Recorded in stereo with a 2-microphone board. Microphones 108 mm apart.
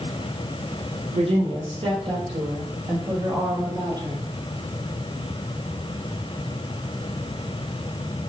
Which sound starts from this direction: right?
A woman speaking, at 1.1 s.